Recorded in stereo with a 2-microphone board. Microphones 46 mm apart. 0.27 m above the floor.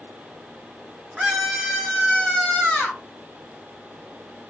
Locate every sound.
1.2 s a scream: 20° right (ahead or behind), 1.5 m; by 3.0 s 25° left (ahead or behind), 1.7 m